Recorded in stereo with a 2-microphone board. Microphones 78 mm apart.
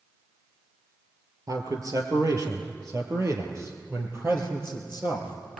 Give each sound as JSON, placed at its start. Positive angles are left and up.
{"t": 1.5, "sound": "a man speaking", "side_deg": -45, "distance_m": 4.0}